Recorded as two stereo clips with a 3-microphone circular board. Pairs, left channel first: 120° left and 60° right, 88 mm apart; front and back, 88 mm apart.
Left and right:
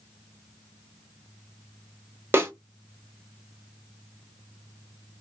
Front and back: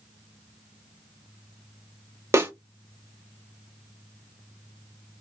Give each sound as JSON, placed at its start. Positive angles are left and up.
{"t": 2.3, "sound": "a snare drum", "azimuth_deg": -120, "distance_m": 0.6}